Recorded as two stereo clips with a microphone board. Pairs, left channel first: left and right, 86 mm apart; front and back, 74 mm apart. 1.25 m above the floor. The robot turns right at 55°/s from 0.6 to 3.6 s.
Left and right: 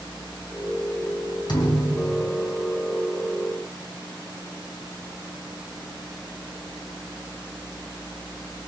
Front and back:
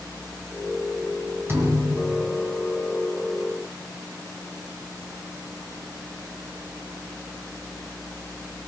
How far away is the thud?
About 4 m.